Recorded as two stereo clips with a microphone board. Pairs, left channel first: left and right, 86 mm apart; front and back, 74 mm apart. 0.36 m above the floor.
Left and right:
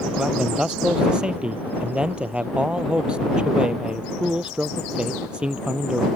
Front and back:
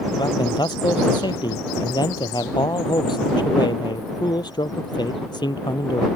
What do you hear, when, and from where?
0.2 s a man speaking: 10° right